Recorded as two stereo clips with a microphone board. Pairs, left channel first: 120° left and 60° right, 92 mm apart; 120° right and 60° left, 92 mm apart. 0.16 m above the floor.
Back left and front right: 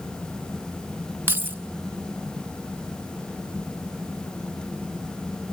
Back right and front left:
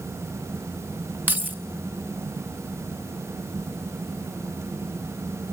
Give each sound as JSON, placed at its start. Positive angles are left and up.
{"t": 1.3, "sound": "keys jangling", "azimuth_deg": 0, "distance_m": 1.2}